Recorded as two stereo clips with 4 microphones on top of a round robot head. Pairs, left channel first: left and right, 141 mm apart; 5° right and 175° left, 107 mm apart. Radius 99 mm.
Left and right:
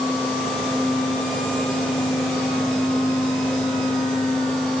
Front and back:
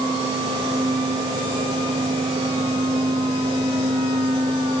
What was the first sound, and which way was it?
Only background noise.